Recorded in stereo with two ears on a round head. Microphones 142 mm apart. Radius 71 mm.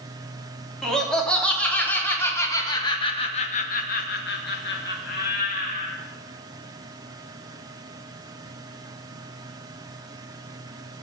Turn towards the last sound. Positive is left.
turn(degrees=50)  # may be behind; listen again after turning